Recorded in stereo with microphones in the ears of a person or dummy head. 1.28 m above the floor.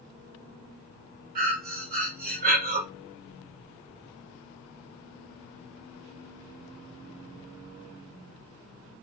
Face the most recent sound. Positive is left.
turn(degrees=-45)  # may be behind; listen again after turning